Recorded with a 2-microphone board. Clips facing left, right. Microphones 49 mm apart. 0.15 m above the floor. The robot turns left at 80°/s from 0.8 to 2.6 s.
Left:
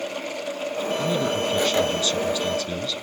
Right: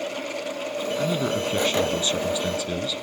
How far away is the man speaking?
About 1.0 m.